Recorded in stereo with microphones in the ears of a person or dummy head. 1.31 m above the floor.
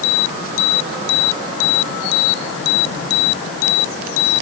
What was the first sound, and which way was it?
Only background noise.